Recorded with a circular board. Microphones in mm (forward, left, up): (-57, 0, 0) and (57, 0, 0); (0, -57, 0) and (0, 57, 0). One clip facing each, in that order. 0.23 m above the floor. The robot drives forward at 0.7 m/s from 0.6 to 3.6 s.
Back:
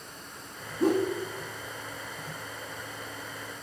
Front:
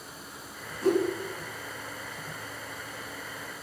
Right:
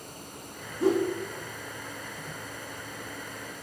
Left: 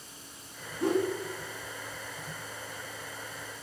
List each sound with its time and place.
0.8 s a whoosh: 145° right, 3 m; by 1.1 s 150° right, 3 m